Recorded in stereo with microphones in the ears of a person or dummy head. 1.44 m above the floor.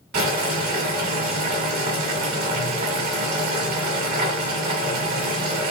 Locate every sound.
0.1 s boiling: 35° right (ahead or behind), 1.6 m